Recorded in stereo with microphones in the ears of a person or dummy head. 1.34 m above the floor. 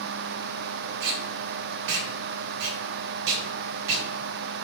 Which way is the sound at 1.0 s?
70° right (ahead or behind).